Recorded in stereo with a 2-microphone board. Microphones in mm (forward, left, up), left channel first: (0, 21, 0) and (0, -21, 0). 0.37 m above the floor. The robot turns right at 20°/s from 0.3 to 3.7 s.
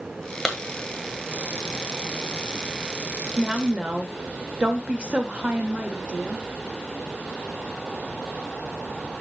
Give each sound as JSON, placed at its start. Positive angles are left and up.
{"t": 0.5, "sound": "a clap", "side_deg": 5, "distance_m": 1.7}
{"t": 3.4, "sound": "a woman speaking", "side_deg": -20, "distance_m": 0.9}